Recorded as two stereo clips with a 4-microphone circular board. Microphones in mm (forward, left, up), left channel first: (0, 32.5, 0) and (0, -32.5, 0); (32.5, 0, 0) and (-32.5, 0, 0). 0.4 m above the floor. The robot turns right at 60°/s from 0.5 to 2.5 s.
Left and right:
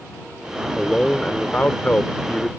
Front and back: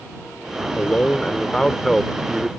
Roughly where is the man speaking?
Ahead.